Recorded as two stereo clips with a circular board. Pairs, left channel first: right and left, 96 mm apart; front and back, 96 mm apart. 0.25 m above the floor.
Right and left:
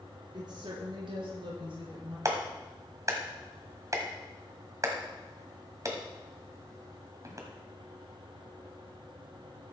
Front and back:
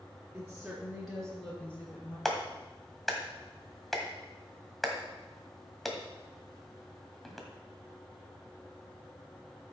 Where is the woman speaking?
105° left, 2.5 m; by 2.1 s 70° left, 4 m.